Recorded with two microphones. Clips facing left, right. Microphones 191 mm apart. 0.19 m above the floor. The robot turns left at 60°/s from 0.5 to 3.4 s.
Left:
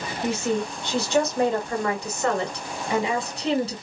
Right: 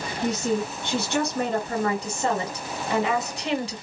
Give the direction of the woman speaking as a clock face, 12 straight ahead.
2 o'clock.